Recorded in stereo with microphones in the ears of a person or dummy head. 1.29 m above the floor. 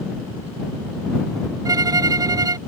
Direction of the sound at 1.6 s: 20° right (ahead or behind).